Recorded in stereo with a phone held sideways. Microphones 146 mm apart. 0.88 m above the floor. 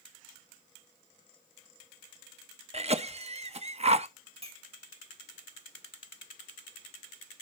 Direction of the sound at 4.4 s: 45° right (ahead or behind).